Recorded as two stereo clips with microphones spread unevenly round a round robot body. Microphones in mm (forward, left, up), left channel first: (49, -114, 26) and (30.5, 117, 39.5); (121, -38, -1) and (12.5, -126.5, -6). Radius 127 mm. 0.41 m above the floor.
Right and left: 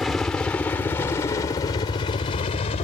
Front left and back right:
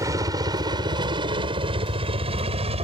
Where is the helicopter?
170° right; by 2.9 s 135° right.